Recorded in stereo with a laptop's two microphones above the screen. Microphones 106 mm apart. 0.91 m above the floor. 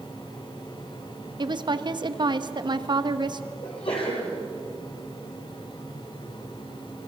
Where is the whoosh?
No whoosh in this recording.